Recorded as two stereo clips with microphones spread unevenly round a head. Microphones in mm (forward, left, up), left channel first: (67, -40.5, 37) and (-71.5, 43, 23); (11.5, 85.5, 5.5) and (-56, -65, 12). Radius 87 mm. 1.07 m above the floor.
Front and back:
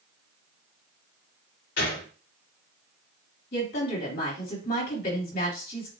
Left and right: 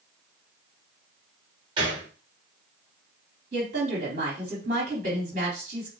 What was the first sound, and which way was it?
A gunshot, 50° right.